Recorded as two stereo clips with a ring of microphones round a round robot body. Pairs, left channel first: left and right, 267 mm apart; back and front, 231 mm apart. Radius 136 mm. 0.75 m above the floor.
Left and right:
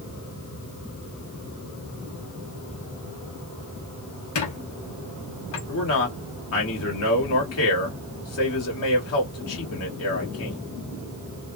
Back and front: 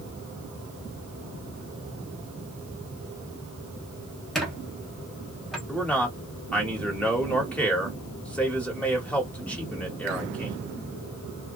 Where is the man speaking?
95° left, 1.5 m.